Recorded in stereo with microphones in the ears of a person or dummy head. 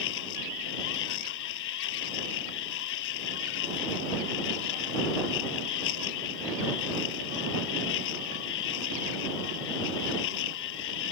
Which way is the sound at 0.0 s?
70° left (ahead or behind).